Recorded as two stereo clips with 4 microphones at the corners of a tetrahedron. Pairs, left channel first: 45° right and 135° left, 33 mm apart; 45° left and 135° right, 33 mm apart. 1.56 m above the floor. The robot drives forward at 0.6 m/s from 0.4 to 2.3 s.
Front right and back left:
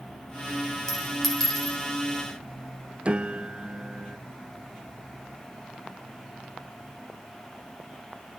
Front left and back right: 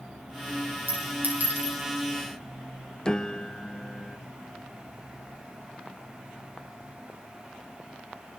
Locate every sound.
0.9 s a clink: 120° right, 5 m; by 1.8 s 125° right, 5 m
3.0 s a piano: 100° left, 0.6 m